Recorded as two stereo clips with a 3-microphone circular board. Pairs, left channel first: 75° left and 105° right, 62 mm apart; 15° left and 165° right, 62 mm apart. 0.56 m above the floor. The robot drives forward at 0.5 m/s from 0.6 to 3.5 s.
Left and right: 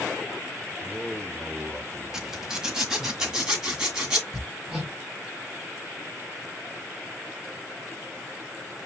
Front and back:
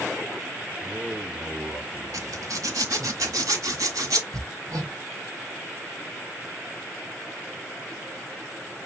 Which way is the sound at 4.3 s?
170° left.